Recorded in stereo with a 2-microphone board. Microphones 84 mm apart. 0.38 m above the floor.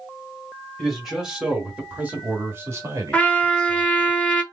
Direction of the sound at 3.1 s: 15° left (ahead or behind).